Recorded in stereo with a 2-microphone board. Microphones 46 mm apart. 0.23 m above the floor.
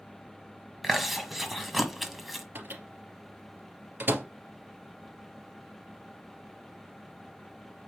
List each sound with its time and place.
0.8 s chewing: 5° right (ahead or behind), 1.4 m
2.5 s a microwave: 55° right (ahead or behind), 3 m